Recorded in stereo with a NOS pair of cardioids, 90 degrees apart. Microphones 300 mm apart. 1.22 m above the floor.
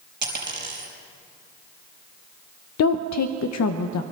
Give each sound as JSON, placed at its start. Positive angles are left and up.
{"t": 0.2, "sound": "a dropped coin", "azimuth_deg": -35, "distance_m": 5.0}
{"t": 2.8, "sound": "a woman speaking", "azimuth_deg": 60, "distance_m": 0.7}